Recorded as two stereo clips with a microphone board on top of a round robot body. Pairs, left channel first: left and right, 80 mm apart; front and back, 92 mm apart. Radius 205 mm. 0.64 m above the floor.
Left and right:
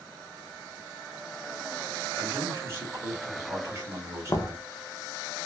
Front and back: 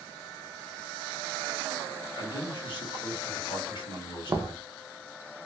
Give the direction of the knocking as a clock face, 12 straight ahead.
8 o'clock.